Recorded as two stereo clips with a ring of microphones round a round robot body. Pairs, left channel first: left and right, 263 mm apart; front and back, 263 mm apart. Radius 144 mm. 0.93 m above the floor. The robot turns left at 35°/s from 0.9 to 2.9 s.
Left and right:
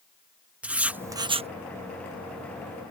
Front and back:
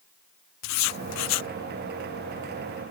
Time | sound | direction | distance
0.6 | writing | 5° right | ?